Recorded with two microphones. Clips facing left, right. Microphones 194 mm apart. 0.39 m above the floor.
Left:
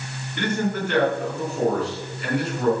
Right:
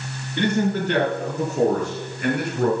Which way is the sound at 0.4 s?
30° right (ahead or behind).